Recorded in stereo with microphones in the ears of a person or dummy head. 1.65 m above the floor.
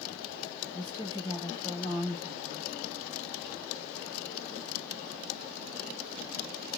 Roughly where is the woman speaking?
Centre.